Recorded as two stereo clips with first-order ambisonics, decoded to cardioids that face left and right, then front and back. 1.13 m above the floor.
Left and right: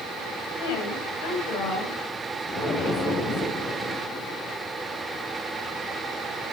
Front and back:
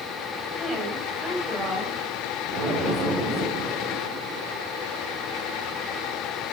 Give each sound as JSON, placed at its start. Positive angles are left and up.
{"t": 0.6, "sound": "a woman speaking", "azimuth_deg": 90, "distance_m": 6.0}
{"t": 2.5, "sound": "an explosion", "azimuth_deg": 135, "distance_m": 4.5}